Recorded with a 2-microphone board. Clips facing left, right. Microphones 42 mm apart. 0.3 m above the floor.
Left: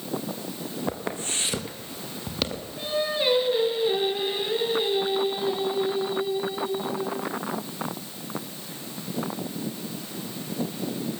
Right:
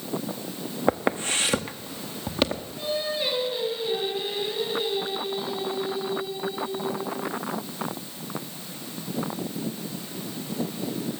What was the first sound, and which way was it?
Footsteps, 35° right (ahead or behind).